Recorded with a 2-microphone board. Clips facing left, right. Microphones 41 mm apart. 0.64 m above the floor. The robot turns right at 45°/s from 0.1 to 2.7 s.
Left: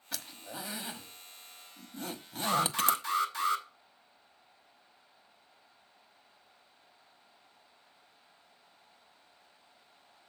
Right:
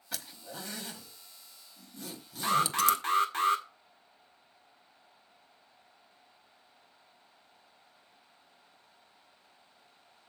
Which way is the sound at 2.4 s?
35° right (ahead or behind).